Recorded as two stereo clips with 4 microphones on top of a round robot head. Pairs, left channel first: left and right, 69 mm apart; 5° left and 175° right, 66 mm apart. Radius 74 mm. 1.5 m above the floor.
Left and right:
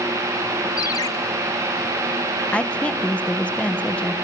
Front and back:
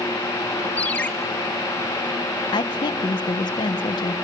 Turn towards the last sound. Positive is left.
turn(degrees=15)